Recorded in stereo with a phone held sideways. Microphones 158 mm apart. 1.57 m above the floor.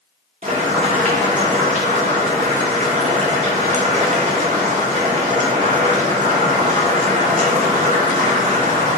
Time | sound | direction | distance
0.4 | boiling | 50° right (ahead or behind) | 0.7 m